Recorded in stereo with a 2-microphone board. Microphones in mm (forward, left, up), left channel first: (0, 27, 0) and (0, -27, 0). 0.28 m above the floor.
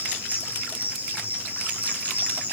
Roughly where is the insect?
Right.